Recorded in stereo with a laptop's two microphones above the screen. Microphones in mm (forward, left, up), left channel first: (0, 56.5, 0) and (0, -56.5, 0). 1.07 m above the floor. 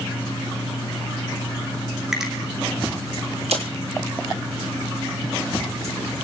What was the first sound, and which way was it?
A finger snap, 5° right (ahead or behind).